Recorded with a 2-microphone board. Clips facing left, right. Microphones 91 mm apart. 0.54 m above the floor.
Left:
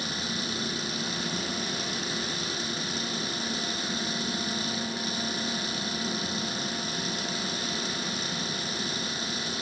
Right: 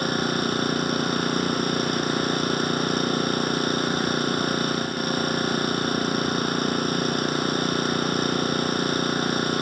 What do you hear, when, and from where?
0.0 s an engine running: 50° right (ahead or behind)